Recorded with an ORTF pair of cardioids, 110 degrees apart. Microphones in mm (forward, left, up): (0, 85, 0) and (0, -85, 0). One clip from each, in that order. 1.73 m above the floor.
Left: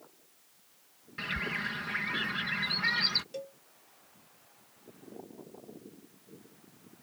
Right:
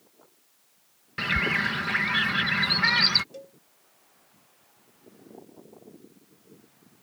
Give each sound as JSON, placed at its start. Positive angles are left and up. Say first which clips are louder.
{"t": 1.2, "sound": "a bird", "louder": "right 9 dB", "azimuth_deg": -50}
{"t": 3.3, "sound": "a cowbell", "louder": "left 3 dB", "azimuth_deg": 20}